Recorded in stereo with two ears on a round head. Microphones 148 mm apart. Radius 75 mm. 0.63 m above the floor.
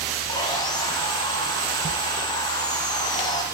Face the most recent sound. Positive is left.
turn(degrees=25)  # may be behind; listen again after turning